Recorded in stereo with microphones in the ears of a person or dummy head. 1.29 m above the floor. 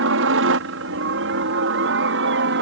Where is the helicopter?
60° right (ahead or behind); by 2.6 s 55° right (ahead or behind).